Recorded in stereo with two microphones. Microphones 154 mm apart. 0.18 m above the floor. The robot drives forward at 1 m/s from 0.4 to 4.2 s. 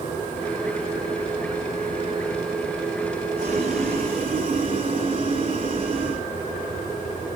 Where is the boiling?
50° right (ahead or behind), 5.5 m; by 6.2 s 40° right (ahead or behind), 6 m.